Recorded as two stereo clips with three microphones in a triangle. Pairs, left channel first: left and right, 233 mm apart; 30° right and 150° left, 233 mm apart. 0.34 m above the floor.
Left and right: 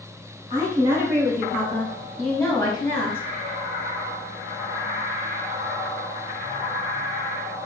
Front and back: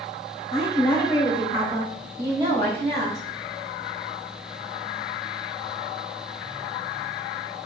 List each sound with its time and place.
0.5 s a woman speaking: 45° right, 1.2 m; by 3.2 s 135° left, 1.3 m